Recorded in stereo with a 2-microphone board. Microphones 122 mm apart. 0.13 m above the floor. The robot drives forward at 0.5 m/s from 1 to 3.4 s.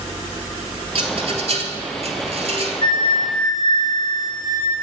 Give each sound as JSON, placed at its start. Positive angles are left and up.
{"t": 0.9, "sound": "a rattle", "side_deg": -55, "distance_m": 1.2}
{"t": 2.8, "sound": "a flute", "side_deg": 35, "distance_m": 1.6}